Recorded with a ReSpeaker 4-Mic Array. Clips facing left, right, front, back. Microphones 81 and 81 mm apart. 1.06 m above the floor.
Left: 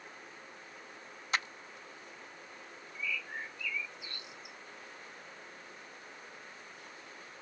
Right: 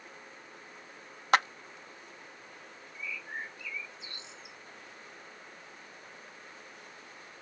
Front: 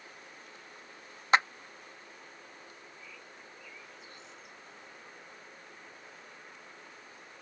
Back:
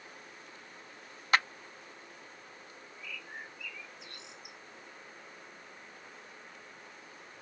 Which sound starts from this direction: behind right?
A bird, at 3.0 s.